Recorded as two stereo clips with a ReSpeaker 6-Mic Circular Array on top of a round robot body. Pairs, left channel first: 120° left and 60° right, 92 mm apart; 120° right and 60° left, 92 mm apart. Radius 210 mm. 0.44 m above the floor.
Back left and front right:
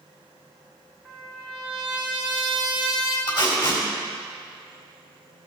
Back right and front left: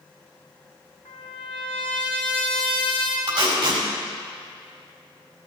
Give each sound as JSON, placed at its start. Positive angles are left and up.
{"t": 1.1, "sound": "a trumpet", "azimuth_deg": -140, "distance_m": 2.5}
{"t": 3.3, "sound": "tape being pulled", "azimuth_deg": 95, "distance_m": 4.5}